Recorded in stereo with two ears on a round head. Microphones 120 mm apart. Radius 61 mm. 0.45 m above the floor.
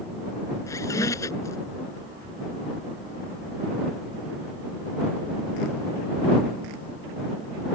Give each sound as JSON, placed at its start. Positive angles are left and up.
{"t": 0.7, "sound": "a squeak", "side_deg": 25}